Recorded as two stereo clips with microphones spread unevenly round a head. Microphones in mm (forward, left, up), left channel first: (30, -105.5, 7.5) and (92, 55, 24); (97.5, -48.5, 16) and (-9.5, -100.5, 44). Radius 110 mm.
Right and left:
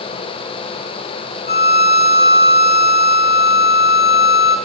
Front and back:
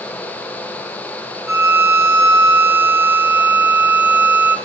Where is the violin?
90° right, 5 m.